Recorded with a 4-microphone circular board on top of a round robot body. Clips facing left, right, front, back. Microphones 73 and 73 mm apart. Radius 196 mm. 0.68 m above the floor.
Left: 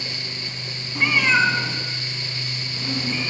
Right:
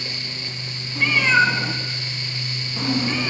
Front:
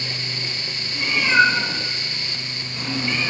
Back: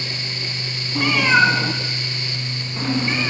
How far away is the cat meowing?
About 1.1 m.